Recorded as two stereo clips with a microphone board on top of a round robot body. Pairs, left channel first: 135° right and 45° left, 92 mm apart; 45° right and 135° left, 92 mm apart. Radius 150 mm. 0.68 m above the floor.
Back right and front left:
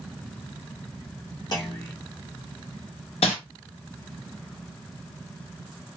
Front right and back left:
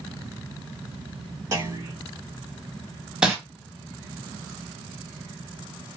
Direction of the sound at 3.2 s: 145° right.